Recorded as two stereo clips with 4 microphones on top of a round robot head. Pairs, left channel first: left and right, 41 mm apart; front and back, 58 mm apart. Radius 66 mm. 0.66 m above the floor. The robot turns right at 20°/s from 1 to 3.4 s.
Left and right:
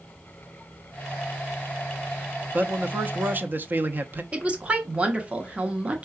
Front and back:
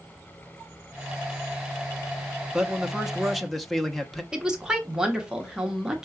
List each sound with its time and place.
2.5 s a man speaking: 105° right, 0.8 m; by 4.2 s 85° right, 0.8 m
4.3 s a woman speaking: 110° right, 0.8 m